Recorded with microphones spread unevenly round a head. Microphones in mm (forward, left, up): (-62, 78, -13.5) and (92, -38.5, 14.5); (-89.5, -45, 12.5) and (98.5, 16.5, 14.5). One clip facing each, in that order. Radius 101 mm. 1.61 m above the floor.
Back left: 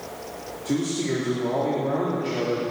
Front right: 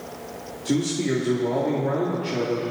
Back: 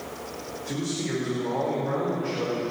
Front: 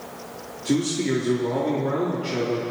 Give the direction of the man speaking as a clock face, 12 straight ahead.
11 o'clock.